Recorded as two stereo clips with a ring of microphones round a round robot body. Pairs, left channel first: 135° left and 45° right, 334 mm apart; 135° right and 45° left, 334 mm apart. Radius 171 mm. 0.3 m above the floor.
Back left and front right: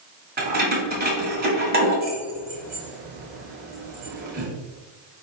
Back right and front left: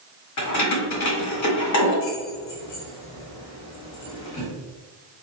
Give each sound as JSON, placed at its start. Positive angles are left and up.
{"t": 0.4, "sound": "keys jangling", "azimuth_deg": -105, "distance_m": 1.3}